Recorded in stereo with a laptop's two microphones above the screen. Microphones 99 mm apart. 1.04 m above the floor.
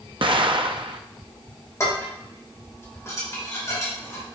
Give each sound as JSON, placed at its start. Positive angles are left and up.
{"t": 0.2, "sound": "an explosion", "side_deg": -60, "distance_m": 0.6}
{"t": 1.8, "sound": "dishes clattering", "side_deg": 30, "distance_m": 2.5}